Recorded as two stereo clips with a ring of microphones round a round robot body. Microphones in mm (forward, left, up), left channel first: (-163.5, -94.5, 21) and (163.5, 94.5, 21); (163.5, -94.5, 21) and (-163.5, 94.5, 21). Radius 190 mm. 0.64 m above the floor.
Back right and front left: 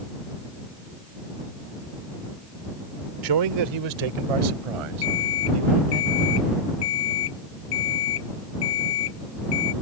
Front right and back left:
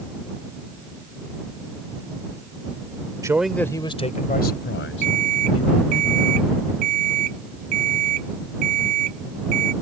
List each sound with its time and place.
3.2 s a man speaking: 70° left; by 6.0 s 25° left
5.0 s an alarm clock: 175° left